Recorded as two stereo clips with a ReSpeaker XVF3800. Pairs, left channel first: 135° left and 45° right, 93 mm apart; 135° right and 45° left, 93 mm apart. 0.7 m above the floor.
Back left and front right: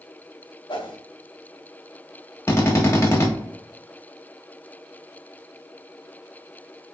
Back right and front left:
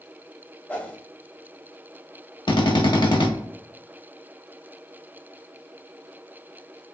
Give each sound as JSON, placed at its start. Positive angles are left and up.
{"t": 0.7, "sound": "a whoosh", "azimuth_deg": 150, "distance_m": 0.6}
{"t": 2.5, "sound": "a drill", "azimuth_deg": -165, "distance_m": 0.7}